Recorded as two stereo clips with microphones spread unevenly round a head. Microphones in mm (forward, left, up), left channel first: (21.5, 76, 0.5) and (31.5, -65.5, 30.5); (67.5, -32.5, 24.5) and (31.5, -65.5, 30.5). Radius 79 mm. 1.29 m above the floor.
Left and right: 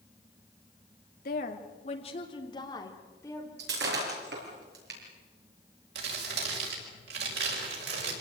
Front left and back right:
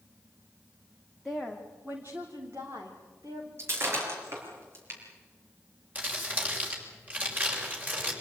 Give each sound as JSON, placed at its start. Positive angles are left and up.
{"t": 1.2, "sound": "a woman speaking", "azimuth_deg": 130, "distance_m": 2.5}
{"t": 3.6, "sound": "breaking glass", "azimuth_deg": -110, "distance_m": 6.5}
{"t": 6.0, "sound": "crumpling", "azimuth_deg": -80, "distance_m": 6.5}